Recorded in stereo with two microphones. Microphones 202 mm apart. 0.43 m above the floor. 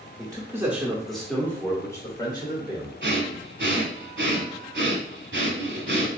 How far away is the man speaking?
About 0.9 m.